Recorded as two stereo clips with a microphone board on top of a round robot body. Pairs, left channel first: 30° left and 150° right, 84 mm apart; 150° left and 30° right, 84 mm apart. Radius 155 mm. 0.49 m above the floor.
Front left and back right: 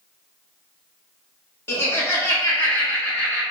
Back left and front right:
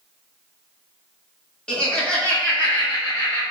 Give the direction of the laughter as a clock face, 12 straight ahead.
9 o'clock.